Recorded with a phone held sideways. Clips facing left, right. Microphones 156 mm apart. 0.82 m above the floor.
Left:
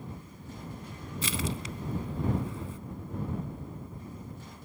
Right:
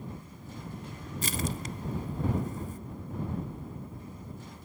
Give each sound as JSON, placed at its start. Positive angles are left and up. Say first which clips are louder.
{"t": 1.2, "sound": "crushing", "louder": "even", "side_deg": -50}